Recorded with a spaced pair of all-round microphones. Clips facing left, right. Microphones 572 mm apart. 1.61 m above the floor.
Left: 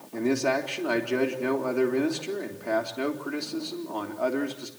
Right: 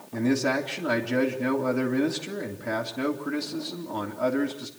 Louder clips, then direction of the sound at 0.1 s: Right 1 dB; 40° right (ahead or behind).